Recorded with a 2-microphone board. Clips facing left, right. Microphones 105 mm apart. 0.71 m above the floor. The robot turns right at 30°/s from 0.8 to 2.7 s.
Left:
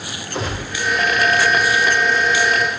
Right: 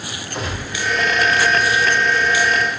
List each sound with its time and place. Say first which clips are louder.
0.3 s a gunshot: left 2 dB; 30° left (ahead or behind), 0.8 m